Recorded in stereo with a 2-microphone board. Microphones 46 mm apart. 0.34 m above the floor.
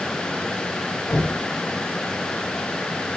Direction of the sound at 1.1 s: 85° left.